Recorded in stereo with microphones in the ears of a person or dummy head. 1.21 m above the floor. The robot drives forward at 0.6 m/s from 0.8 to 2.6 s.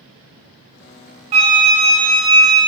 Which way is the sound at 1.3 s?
35° right (ahead or behind).